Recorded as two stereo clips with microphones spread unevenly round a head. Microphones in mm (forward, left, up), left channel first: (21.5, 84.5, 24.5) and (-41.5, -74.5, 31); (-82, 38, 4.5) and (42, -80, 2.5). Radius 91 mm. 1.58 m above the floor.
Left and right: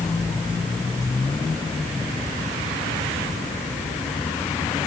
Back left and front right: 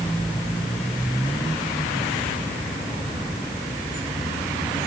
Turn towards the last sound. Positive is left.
No sound to turn to.